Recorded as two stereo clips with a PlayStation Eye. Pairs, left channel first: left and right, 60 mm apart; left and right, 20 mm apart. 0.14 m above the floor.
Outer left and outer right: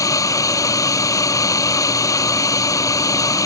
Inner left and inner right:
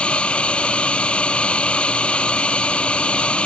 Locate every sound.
0.0 s a drone: 70° left (ahead or behind)